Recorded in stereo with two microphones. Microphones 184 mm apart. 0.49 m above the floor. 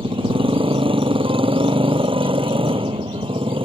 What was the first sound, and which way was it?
A motorcycle, 30° right (ahead or behind).